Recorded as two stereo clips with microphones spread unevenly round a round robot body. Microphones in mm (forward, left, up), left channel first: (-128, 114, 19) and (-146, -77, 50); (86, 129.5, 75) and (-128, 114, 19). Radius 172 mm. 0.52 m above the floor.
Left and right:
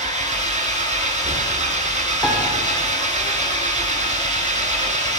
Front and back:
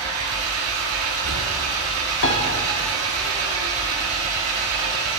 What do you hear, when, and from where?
0.0 s an engine running: 150° right, 2.5 m
2.2 s a piano: straight ahead, 1.9 m